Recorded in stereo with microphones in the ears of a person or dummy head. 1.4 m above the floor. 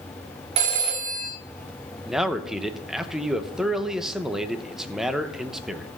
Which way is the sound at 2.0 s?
10° right (ahead or behind).